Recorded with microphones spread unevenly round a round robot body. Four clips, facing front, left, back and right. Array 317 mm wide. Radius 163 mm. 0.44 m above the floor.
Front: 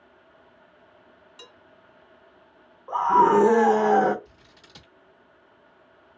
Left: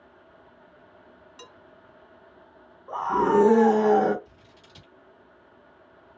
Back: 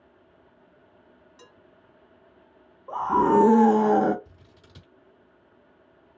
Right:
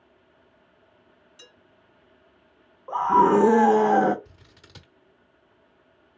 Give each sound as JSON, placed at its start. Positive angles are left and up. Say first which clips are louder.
{"t": 1.4, "sound": "dishes clattering", "louder": "left 6 dB, front 3 dB", "azimuth_deg": 80, "distance_m": 2.5}
{"t": 2.9, "sound": "a scream", "louder": "right 4 dB, front 3 dB", "azimuth_deg": -120, "distance_m": 0.7}
{"t": 4.2, "sound": "scissors", "louder": "left 2 dB, front 1 dB", "azimuth_deg": -105, "distance_m": 1.2}